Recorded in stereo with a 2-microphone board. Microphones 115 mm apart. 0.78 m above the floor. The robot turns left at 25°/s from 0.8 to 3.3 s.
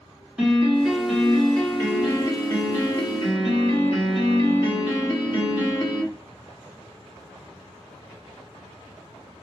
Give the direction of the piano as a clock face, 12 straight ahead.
6 o'clock.